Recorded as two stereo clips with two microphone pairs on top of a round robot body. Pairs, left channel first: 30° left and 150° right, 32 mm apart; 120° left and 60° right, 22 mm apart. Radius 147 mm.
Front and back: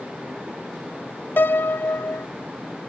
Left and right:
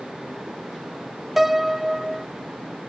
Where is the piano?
10° left.